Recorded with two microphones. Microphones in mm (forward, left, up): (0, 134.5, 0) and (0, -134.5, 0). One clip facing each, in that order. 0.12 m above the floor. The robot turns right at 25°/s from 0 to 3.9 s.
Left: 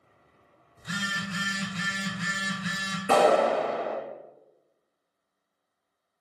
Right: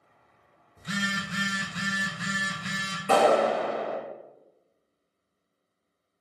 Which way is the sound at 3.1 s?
10° left (ahead or behind).